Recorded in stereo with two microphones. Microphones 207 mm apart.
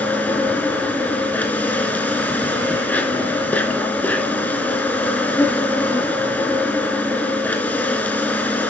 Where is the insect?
10° left (ahead or behind), 3.5 m.